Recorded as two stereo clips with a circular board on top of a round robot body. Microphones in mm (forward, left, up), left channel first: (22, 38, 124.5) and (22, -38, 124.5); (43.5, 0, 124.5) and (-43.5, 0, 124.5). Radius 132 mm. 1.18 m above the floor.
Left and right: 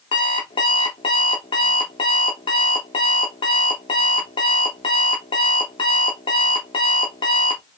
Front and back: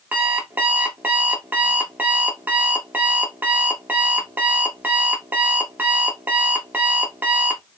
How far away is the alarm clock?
About 0.8 m.